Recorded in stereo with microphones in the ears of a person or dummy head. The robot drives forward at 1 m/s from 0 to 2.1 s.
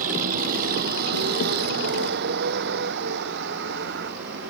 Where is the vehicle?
50° right (ahead or behind); by 4.5 s 65° right (ahead or behind).